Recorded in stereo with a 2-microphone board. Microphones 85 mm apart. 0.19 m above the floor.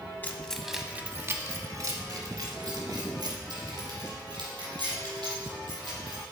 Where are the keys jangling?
25° left (ahead or behind), 0.8 m; by 6.2 s 75° right (ahead or behind), 5 m.